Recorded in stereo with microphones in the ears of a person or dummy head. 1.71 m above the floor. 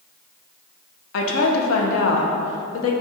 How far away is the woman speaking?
About 0.7 m.